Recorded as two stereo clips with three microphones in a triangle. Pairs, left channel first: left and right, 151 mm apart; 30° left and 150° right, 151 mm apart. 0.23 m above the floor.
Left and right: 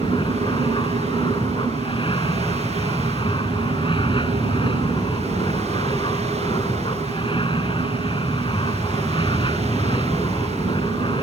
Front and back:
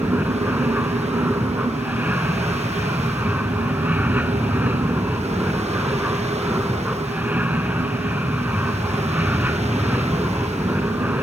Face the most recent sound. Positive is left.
turn(degrees=135)